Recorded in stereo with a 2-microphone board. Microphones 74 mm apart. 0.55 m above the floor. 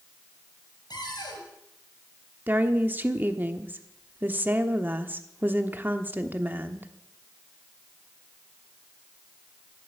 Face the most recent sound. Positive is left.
turn(degrees=-25)  # may be behind; listen again after turning